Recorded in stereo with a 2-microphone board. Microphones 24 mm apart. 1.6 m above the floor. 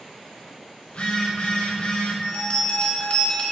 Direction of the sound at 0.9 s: 50° left (ahead or behind).